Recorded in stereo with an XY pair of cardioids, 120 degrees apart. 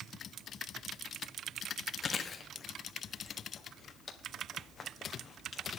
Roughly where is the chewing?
Ahead left.